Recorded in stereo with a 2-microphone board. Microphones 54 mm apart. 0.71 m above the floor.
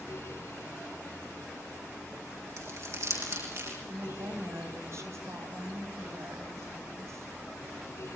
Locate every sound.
2.6 s crumpling: 60° right (ahead or behind), 6.5 m
3.9 s a woman speaking: 60° right (ahead or behind), 4 m